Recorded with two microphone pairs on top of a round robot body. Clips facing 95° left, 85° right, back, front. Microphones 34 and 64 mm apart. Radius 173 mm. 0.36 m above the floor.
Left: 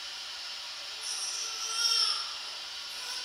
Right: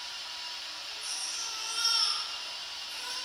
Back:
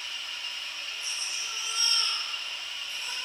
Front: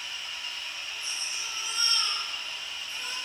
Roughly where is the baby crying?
Ahead right.